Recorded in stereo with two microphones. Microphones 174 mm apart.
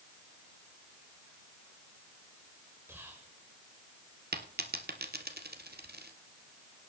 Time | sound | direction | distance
2.9 | whispering | 10° right (ahead or behind) | 1.9 m
4.3 | a dropped coin | 65° right (ahead or behind) | 1.8 m